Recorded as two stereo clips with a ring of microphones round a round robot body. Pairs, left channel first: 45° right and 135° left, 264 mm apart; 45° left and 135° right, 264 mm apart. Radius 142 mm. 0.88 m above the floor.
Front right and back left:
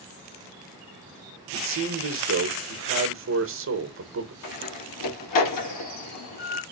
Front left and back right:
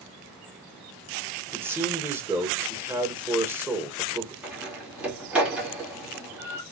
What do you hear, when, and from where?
1.5 s a man speaking: 145° left, 1.2 m
4.4 s a door slam: 50° right, 1.6 m